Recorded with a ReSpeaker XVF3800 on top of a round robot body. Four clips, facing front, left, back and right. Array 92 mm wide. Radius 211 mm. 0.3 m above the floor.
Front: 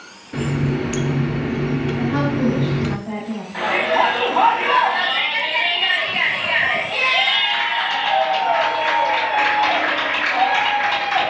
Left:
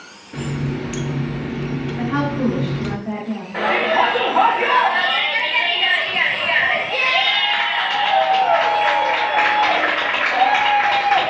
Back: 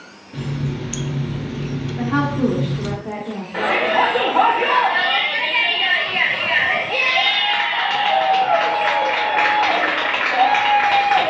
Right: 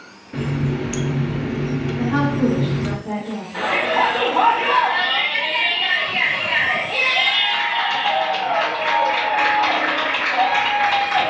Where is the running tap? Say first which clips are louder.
Right 2 dB, front 5 dB; 10° right, 0.6 m.